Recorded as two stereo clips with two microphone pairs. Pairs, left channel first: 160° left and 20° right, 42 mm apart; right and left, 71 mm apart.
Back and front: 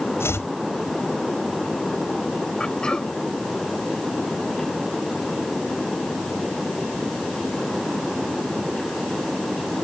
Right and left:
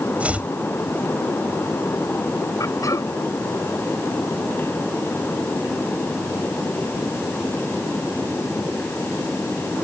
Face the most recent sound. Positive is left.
turn(degrees=-125)